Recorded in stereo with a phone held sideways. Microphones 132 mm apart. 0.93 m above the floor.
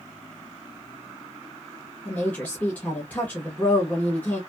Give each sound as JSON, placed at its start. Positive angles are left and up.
{"t": 2.0, "sound": "a woman speaking", "side_deg": 10, "distance_m": 0.9}